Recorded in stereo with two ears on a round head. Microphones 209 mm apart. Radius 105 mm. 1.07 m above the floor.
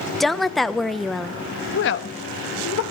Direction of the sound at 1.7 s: 50° left (ahead or behind).